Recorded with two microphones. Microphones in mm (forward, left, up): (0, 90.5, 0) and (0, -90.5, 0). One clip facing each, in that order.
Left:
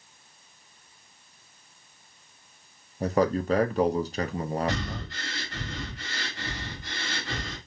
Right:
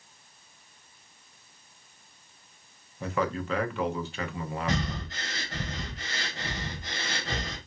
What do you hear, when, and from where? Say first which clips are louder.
3.0 s a man speaking: left 6 dB; 40° left (ahead or behind), 0.7 m
4.7 s breathing: even; 45° right (ahead or behind), 3 m